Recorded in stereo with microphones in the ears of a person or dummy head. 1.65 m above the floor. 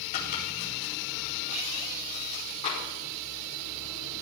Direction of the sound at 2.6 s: 40° left (ahead or behind).